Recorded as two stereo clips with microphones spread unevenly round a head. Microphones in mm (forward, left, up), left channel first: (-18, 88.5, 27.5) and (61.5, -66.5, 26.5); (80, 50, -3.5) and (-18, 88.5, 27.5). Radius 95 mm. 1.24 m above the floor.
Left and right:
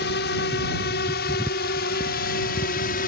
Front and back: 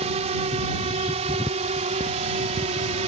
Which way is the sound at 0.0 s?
150° left.